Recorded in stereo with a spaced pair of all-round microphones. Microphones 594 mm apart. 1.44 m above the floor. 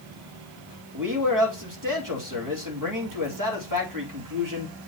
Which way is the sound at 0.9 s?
30° right (ahead or behind).